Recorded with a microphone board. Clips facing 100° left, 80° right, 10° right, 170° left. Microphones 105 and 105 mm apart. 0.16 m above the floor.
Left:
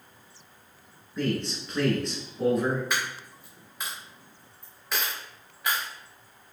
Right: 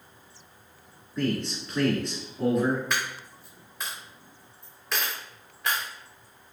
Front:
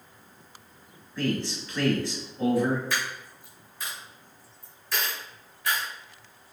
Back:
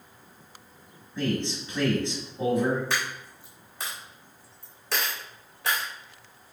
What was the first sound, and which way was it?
A man speaking, 170° right.